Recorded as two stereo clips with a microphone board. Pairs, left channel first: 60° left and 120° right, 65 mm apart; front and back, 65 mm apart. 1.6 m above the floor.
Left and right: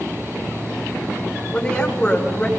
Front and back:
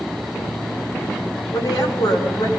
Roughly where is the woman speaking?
Ahead.